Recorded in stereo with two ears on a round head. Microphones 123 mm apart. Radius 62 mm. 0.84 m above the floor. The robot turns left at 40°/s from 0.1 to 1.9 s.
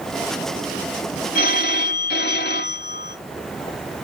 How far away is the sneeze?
No sneeze in this recording.